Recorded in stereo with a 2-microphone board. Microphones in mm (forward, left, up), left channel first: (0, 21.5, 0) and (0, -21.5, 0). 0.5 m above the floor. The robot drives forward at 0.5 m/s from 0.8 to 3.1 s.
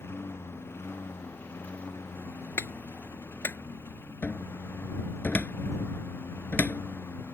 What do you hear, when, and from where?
0.0 s a lawn mower: 70° left (ahead or behind); by 7.3 s 65° left (ahead or behind)
2.6 s a clap: 75° left (ahead or behind); by 3.6 s 70° left (ahead or behind)
4.2 s a cupboard door: 45° left (ahead or behind)